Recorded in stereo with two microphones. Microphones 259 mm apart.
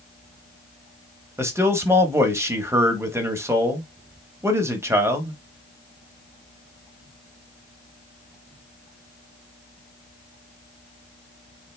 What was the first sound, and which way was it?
A man speaking, 10° right (ahead or behind).